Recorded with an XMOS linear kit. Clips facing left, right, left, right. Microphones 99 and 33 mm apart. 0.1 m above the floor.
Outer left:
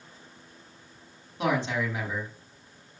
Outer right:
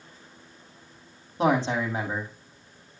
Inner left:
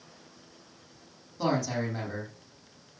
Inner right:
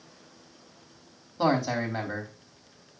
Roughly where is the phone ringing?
No phone ringing in this recording.